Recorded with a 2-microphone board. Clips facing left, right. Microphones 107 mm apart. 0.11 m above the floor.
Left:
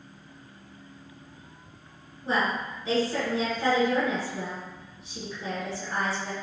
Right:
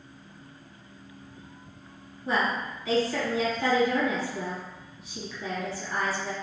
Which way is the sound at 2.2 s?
30° left (ahead or behind).